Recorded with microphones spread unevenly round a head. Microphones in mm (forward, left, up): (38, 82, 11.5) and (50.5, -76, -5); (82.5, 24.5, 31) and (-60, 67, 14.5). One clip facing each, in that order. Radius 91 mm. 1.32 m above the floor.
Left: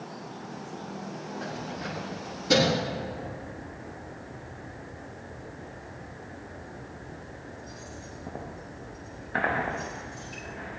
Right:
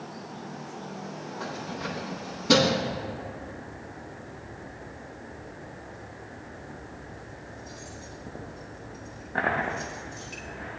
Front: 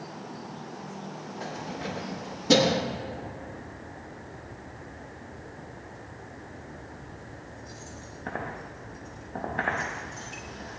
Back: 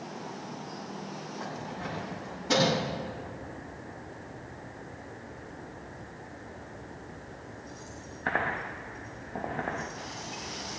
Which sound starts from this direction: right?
Keys jangling, at 1.4 s.